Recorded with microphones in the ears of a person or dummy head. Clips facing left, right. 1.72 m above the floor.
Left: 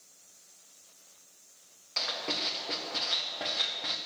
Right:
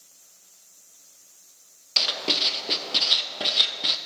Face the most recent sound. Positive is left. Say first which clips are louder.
# right 5 dB
turn(degrees=-45)  # may be behind; listen again after turning